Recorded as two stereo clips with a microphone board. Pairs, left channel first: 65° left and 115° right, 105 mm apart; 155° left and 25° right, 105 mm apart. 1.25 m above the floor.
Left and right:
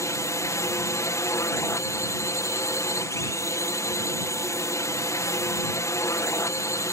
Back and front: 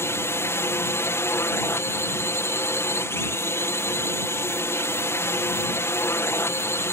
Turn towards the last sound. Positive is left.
turn(degrees=105)